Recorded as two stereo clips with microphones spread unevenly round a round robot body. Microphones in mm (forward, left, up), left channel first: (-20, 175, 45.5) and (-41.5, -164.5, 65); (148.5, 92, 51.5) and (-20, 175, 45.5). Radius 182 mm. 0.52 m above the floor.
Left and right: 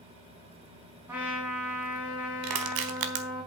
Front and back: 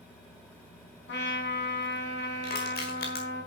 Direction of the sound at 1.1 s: 10° right.